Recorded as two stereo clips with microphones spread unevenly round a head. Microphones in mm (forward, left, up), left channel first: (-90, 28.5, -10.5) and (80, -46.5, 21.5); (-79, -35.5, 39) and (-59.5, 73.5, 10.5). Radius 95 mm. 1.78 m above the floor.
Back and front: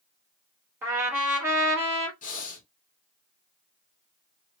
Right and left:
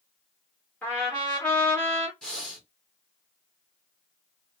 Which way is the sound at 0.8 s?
70° right.